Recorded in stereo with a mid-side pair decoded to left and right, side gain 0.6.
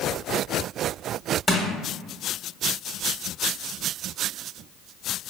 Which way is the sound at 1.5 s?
20° left.